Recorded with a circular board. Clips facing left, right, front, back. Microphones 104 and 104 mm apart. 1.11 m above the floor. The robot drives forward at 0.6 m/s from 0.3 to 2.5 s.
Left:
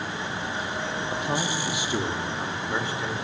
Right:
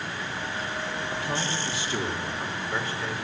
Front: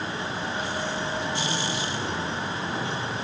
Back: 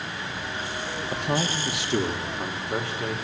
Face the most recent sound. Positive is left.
turn(degrees=165)